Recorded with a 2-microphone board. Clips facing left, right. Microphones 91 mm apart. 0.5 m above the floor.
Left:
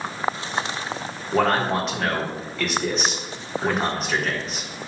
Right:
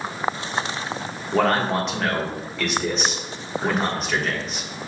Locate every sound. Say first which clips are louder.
1.3 s a man speaking: even; centre (ahead or behind), 1.3 m